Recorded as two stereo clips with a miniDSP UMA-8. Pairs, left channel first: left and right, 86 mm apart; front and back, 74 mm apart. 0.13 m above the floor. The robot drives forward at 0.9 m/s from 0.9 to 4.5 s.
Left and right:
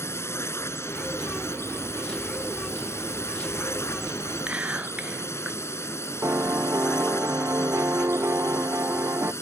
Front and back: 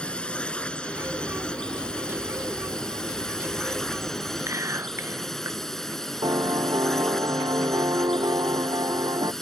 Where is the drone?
65° left; by 9.4 s 80° left.